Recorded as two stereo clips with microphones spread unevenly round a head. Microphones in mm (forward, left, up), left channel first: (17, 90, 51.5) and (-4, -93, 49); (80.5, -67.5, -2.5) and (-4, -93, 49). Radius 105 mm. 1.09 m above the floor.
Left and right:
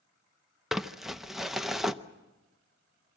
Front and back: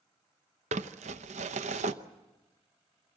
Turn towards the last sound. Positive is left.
turn(degrees=175)